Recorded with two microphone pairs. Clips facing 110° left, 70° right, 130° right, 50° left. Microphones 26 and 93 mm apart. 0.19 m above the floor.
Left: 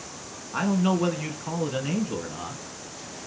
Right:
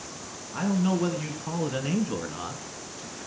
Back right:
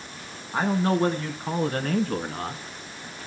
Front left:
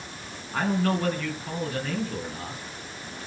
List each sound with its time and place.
0.5 s a man speaking: 160° left, 2.5 m; by 2.6 s 140° right, 3 m